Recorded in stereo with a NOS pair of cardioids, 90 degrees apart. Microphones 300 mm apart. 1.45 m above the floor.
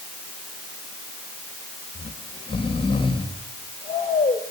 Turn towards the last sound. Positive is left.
turn(degrees=15)